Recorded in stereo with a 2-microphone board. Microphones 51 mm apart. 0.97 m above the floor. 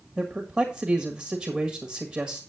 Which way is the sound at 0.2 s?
10° right (ahead or behind).